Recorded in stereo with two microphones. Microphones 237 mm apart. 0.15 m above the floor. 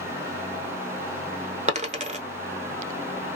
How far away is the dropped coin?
About 0.7 m.